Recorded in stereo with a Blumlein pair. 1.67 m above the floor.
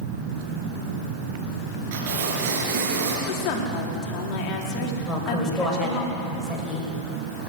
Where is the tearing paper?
50° right, 6 m.